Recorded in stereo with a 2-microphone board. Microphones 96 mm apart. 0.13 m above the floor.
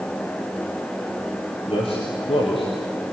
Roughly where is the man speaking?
Left.